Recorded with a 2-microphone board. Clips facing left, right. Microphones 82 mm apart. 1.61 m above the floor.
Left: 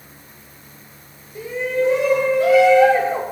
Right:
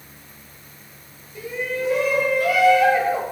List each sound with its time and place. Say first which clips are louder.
1.4 s a shout: left 6 dB; 25° left (ahead or behind), 6 m; by 3.2 s 30° left (ahead or behind), 4.5 m